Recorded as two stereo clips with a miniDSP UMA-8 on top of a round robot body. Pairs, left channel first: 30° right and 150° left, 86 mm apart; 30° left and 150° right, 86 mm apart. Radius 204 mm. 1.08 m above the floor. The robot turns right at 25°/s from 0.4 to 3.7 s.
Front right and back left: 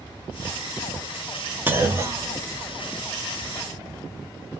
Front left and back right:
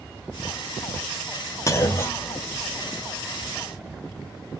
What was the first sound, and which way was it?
A clunk, 85° left.